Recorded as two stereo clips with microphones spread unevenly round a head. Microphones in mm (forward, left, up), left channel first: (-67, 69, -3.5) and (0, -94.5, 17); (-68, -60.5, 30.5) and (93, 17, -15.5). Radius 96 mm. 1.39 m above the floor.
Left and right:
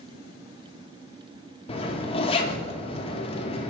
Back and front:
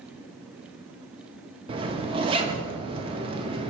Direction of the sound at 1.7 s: 85° left.